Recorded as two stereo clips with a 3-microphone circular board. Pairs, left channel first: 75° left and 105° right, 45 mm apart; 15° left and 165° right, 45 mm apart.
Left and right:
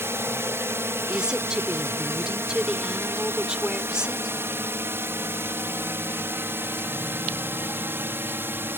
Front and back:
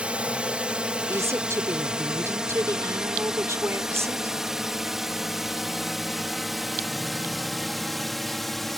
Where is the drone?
105° right; by 8.8 s 75° right.